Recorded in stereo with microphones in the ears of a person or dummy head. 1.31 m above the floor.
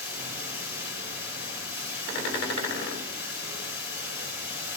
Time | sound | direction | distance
0.0 | running water | 55° left (ahead or behind) | 7 m